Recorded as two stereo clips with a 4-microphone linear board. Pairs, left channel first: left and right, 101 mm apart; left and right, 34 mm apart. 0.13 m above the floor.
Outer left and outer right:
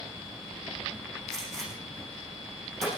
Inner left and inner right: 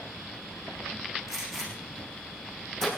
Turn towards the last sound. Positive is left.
turn(degrees=5)  # may be behind; listen again after turning